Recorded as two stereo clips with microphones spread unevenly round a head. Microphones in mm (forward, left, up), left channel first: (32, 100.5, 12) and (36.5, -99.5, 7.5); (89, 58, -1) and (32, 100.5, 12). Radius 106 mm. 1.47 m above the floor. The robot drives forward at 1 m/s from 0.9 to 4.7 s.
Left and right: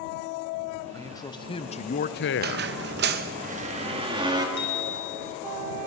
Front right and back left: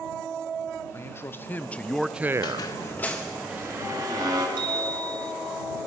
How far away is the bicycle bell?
About 4 m.